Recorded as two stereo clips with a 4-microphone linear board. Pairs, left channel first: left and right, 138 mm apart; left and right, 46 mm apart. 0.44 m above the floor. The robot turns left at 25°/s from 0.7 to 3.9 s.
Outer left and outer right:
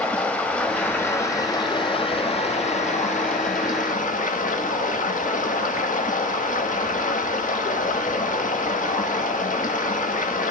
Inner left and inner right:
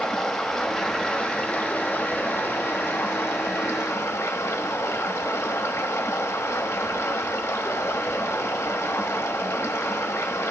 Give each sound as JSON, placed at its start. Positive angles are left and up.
{"t": 0.0, "sound": "running water", "azimuth_deg": 170, "distance_m": 0.8}